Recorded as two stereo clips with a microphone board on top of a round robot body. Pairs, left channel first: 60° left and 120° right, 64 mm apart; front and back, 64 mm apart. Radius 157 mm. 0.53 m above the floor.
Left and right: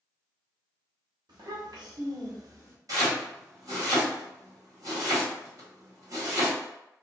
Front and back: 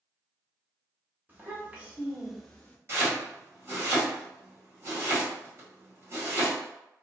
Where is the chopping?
135° right, 1.8 m.